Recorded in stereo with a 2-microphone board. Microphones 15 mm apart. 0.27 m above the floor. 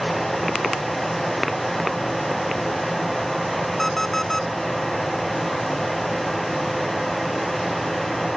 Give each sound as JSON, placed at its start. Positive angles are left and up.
{"t": 3.8, "sound": "an alarm clock", "side_deg": 25}